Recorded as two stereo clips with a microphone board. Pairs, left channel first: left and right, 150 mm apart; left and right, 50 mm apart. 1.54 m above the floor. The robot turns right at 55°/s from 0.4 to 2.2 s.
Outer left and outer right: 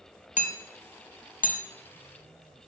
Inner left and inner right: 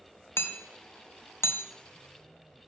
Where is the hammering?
55° left (ahead or behind), 0.6 m.